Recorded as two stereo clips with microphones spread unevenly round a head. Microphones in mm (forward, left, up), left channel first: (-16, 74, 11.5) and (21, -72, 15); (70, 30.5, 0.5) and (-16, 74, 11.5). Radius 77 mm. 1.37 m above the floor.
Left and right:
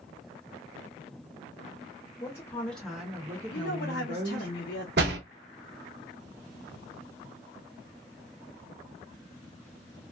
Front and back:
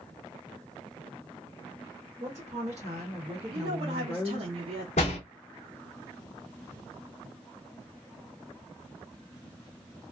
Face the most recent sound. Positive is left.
turn(degrees=-60)